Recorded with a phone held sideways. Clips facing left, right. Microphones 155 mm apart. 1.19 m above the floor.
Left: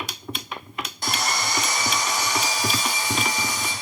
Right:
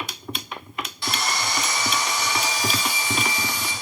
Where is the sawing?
45° left (ahead or behind), 0.9 m.